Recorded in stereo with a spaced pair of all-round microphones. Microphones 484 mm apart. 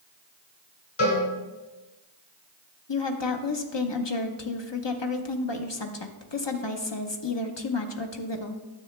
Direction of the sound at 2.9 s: 60° left (ahead or behind).